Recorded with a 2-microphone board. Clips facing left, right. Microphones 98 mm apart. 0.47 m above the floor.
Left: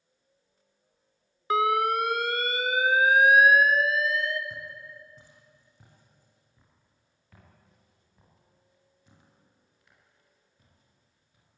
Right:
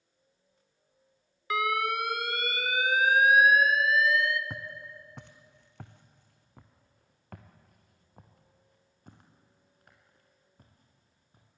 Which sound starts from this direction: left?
An alarm, at 1.5 s.